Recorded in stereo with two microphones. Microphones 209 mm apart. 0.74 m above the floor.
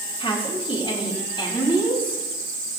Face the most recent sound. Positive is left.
turn(degrees=25)  # may be behind; listen again after turning